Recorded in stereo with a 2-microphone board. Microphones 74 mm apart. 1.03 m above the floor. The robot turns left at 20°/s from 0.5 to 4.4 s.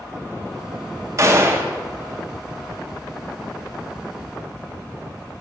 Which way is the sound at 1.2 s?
40° right (ahead or behind).